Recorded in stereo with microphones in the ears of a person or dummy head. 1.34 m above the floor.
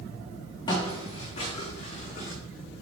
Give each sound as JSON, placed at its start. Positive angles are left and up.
{"t": 0.7, "sound": "footsteps", "side_deg": 25, "distance_m": 4.0}